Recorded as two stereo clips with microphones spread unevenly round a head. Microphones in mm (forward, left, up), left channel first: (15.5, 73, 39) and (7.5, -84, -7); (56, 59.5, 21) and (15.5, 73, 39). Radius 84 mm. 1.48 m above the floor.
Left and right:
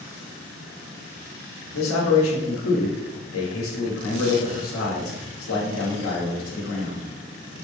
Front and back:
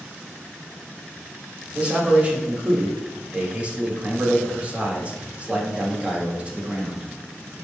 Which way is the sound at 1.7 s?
95° left.